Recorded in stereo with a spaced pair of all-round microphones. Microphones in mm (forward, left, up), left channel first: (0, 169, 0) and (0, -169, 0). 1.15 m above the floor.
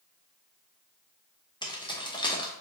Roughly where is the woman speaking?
No woman speaking in this recording.